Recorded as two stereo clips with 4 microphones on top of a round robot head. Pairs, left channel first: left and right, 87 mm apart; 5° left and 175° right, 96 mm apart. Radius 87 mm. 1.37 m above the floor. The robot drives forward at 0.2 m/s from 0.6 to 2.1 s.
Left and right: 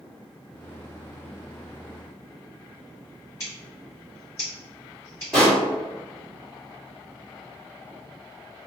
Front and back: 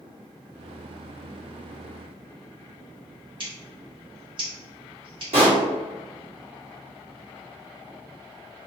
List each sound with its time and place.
3.4 s scissors: 155° left, 1.3 m
5.3 s a pop: straight behind, 1.3 m